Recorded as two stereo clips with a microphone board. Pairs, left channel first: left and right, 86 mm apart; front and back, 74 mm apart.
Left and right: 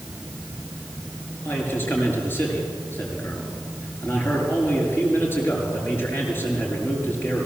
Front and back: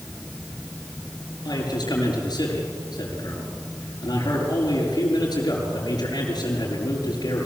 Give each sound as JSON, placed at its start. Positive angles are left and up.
{"t": 1.4, "sound": "a man speaking", "azimuth_deg": 25, "distance_m": 6.5}